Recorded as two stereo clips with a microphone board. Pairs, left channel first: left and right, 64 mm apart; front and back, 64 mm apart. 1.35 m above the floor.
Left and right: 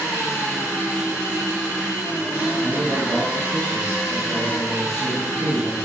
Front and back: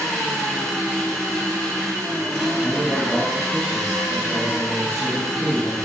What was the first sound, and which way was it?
An engine running, 80° left.